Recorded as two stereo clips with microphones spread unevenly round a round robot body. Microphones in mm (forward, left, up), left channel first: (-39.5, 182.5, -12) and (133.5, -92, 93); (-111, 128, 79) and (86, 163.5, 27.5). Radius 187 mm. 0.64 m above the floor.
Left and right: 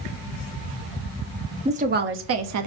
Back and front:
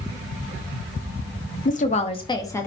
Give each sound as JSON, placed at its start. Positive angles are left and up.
{"t": 1.6, "sound": "a woman speaking", "azimuth_deg": -150, "distance_m": 1.0}